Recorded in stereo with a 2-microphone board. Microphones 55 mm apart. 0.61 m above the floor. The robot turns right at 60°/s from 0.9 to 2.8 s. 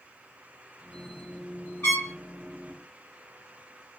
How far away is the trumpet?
About 1.9 m.